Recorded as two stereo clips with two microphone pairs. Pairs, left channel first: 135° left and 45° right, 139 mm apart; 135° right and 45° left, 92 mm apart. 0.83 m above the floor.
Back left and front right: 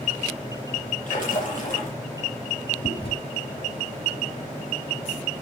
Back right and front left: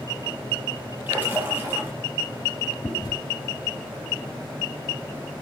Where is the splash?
115° left, 7.5 m.